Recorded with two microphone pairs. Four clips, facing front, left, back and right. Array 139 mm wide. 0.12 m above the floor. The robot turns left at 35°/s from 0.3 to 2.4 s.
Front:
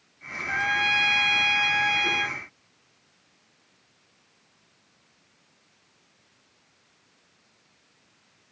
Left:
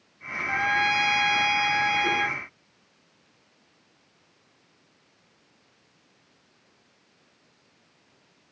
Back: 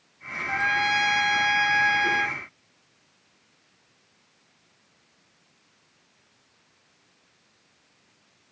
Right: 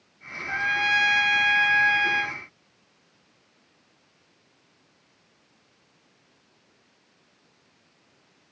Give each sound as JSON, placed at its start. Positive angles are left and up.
{"t": 0.5, "sound": "a trumpet", "azimuth_deg": -45, "distance_m": 0.7}